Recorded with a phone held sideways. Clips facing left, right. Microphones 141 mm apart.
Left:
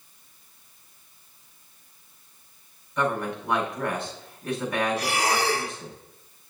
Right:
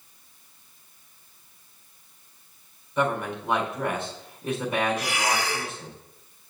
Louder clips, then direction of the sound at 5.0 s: Left 2 dB; 40° left (ahead or behind).